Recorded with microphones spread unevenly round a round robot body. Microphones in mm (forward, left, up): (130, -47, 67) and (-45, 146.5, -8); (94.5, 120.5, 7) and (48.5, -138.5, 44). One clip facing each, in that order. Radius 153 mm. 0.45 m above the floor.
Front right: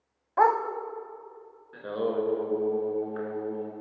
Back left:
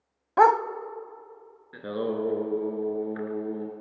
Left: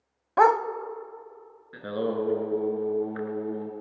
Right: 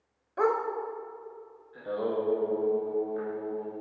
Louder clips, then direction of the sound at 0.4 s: Back left 4 dB, left 3 dB; 90° left.